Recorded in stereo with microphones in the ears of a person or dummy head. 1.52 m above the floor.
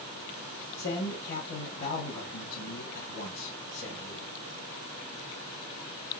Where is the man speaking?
50° left (ahead or behind), 1.8 m.